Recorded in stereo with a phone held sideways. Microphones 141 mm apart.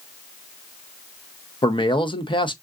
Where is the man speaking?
35° left (ahead or behind), 0.7 m.